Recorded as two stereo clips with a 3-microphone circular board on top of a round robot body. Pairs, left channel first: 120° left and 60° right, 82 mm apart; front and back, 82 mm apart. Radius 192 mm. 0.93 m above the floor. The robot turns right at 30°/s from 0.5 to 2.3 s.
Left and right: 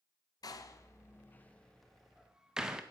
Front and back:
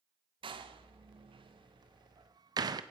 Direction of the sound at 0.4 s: 165° left.